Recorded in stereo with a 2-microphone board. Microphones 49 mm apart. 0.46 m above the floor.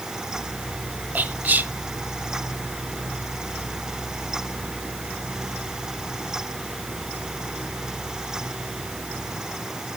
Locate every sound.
1.1 s whispering: 35° right (ahead or behind), 1.3 m